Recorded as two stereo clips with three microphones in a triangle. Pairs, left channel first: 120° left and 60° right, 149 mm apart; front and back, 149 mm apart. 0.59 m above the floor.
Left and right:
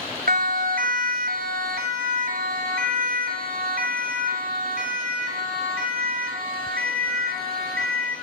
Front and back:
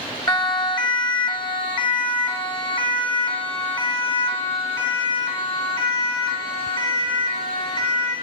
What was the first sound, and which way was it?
A siren, 60° right.